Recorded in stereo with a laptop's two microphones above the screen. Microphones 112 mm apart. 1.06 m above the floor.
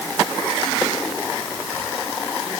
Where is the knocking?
No knocking in this recording.